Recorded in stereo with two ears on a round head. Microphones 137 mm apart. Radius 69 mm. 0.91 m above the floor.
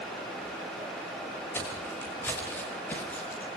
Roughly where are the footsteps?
Centre.